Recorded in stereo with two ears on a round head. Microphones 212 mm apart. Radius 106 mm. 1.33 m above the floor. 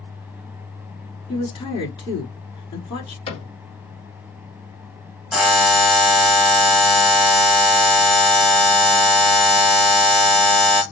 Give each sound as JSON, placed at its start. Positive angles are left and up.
{"t": 1.3, "sound": "a woman speaking", "side_deg": 25, "distance_m": 3.0}
{"t": 3.3, "sound": "a cupboard door", "side_deg": 25, "distance_m": 2.5}
{"t": 5.3, "sound": "a buzzer", "side_deg": 0, "distance_m": 1.4}